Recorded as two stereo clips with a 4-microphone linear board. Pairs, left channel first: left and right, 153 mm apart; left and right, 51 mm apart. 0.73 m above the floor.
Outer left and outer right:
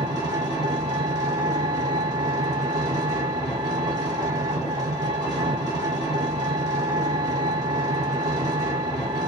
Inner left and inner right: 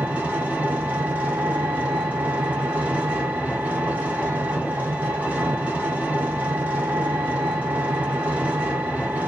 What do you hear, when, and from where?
0.0 s an engine running: 25° right (ahead or behind), 1.4 m